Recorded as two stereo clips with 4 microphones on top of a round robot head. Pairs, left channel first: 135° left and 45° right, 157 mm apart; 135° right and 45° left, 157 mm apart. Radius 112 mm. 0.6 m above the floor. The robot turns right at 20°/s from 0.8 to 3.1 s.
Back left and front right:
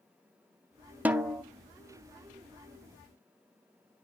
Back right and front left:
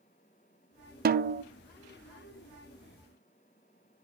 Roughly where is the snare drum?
Ahead left.